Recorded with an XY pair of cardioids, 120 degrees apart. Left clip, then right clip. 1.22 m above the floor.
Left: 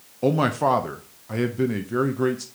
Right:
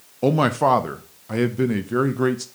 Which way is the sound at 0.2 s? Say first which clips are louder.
Right 3 dB; 20° right.